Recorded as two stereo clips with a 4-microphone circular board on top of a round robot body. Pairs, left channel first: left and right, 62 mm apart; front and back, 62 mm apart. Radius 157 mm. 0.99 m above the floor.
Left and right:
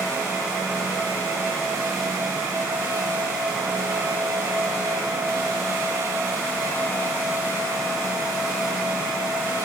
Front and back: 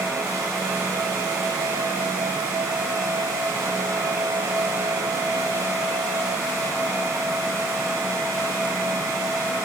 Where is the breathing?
No breathing in this recording.